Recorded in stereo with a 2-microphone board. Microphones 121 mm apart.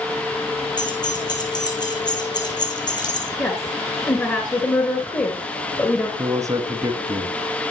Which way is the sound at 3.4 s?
25° left (ahead or behind).